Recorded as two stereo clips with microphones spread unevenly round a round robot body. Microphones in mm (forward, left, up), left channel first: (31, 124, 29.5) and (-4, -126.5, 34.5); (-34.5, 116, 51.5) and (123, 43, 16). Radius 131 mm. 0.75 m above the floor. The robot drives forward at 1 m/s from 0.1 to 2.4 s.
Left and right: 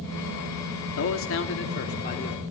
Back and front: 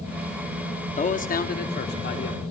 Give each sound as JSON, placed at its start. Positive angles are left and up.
{"t": 1.0, "sound": "a man speaking", "azimuth_deg": 105, "distance_m": 1.8}